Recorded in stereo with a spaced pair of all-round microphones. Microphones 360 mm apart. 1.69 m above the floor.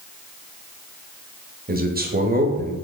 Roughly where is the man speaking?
Right.